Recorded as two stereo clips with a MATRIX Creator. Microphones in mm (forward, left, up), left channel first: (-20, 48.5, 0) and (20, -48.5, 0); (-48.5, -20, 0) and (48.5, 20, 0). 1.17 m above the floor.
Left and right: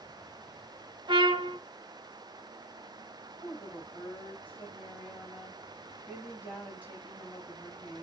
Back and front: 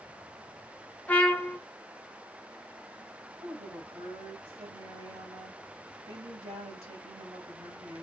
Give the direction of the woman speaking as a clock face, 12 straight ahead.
11 o'clock.